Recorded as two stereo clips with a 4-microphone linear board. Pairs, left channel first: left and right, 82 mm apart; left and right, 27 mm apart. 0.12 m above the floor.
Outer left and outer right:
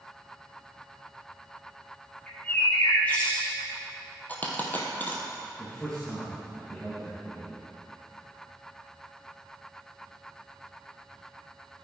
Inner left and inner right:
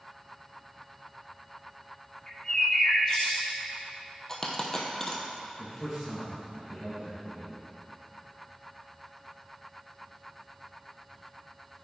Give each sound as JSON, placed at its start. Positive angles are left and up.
{"t": 2.3, "sound": "a bird", "side_deg": 20, "distance_m": 2.5}
{"t": 4.3, "sound": "a dropped coin", "side_deg": 20, "distance_m": 1.5}
{"t": 5.6, "sound": "a man speaking", "side_deg": 10, "distance_m": 2.5}